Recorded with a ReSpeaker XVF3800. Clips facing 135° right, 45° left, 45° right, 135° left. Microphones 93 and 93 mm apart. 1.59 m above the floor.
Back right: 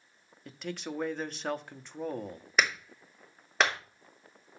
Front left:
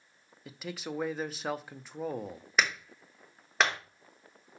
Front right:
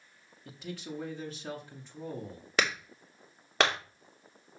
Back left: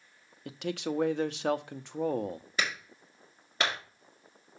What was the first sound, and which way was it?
A man speaking, 130° left.